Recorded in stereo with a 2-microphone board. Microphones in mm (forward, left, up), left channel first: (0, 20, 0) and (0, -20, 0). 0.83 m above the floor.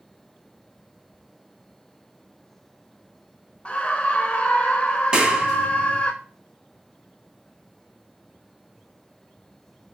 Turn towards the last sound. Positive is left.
turn(degrees=-20)  # may be behind; listen again after turning